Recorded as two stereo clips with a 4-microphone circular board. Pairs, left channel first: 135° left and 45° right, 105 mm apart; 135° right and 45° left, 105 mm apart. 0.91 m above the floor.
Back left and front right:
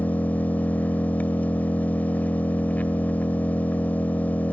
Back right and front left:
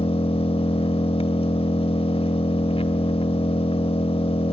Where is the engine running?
150° right, 1.6 m.